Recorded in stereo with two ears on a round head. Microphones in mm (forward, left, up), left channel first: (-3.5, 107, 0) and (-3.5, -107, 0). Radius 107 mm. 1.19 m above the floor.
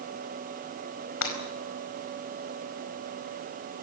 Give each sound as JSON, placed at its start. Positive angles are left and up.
{"t": 1.2, "sound": "breaking glass", "side_deg": 85, "distance_m": 4.5}